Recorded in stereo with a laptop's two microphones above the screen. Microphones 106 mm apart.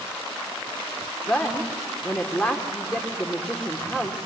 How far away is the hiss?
No hiss in this recording.